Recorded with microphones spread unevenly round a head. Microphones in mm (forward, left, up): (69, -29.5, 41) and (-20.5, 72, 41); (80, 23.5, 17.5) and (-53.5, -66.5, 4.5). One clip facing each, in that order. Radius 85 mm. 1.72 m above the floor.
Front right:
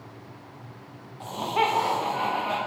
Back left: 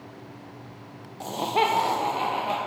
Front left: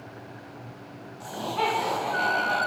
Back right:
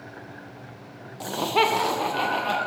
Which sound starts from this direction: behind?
Laughter, at 1.2 s.